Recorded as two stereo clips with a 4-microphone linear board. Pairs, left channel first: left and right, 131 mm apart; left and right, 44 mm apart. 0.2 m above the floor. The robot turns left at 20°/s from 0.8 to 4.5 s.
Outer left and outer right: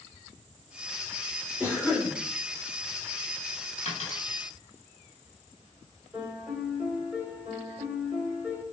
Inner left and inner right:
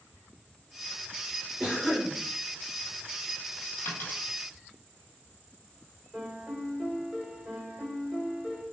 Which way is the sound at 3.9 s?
50° left (ahead or behind).